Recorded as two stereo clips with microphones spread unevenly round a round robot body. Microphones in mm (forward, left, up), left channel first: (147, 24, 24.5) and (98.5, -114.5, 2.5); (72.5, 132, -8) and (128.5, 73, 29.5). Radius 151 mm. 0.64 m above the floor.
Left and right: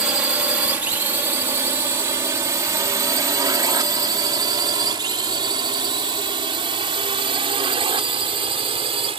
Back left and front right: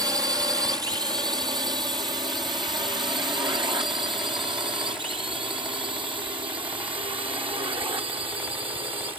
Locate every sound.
0.0 s a drone: 65° right; by 9.2 s 75° right